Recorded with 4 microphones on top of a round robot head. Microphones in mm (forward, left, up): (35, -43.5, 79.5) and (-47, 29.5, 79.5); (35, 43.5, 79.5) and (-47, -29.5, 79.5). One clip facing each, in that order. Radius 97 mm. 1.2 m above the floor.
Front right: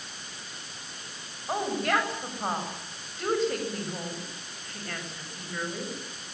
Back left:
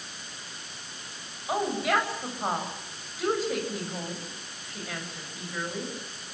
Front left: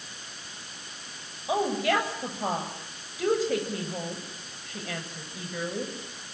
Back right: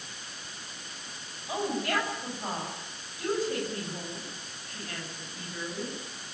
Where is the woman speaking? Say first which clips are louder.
Back left 1 dB, front left 5 dB; 50° left, 8 m.